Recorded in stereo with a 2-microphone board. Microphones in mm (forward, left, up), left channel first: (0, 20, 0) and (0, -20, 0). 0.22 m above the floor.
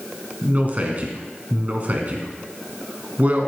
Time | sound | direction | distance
0.4 | a man speaking | 40° right (ahead or behind) | 2 m